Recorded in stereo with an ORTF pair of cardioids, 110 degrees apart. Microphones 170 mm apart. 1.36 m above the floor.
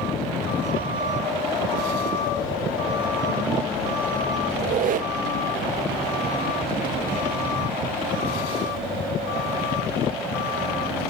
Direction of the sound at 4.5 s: 55° right.